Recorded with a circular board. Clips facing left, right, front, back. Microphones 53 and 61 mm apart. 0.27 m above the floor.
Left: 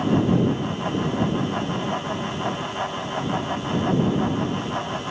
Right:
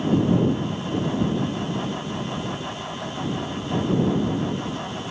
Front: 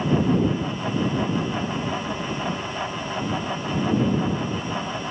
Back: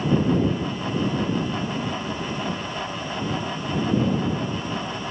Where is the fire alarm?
I don't hear a fire alarm.